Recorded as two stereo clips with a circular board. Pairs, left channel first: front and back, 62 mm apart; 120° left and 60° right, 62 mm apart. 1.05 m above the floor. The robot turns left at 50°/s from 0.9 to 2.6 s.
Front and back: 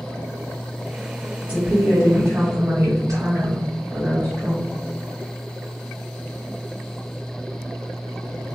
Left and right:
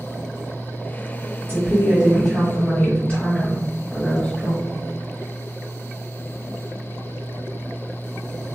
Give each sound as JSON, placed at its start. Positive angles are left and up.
{"t": 1.4, "sound": "a woman speaking", "azimuth_deg": -105, "distance_m": 1.7}